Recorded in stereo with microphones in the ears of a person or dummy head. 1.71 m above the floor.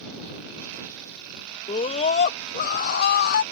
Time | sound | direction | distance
1.7 | a scream | 30° left (ahead or behind) | ?